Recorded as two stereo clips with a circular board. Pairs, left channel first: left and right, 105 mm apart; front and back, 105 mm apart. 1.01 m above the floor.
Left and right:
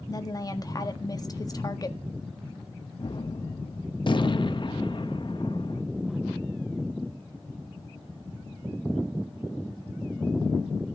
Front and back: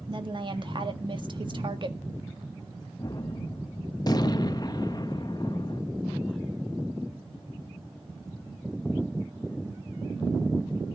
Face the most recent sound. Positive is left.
turn(degrees=50)